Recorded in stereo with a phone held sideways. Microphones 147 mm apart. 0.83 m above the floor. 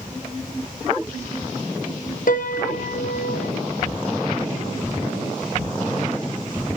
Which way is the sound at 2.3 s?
70° left (ahead or behind).